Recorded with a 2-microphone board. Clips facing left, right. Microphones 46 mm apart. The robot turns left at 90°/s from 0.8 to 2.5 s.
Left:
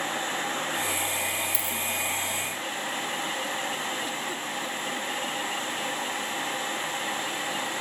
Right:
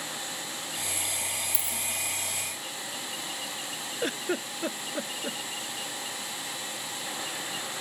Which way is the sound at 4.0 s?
55° right (ahead or behind).